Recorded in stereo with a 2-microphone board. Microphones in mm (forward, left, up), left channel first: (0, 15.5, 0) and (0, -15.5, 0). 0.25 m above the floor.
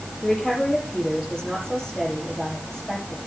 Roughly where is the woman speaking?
Left.